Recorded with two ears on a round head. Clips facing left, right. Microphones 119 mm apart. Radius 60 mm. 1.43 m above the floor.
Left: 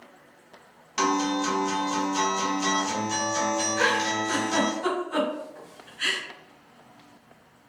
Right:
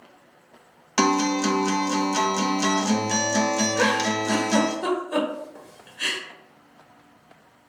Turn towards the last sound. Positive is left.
turn(degrees=-60)  # may be behind; listen again after turning